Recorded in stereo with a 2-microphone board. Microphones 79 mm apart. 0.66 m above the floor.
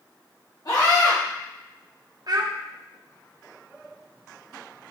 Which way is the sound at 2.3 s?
60° right (ahead or behind).